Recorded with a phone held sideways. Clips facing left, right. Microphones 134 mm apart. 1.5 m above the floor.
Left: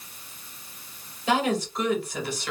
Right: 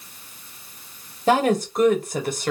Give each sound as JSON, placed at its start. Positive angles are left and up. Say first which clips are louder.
{"t": 1.3, "sound": "a woman speaking", "louder": "right 5 dB", "side_deg": -45, "distance_m": 0.8}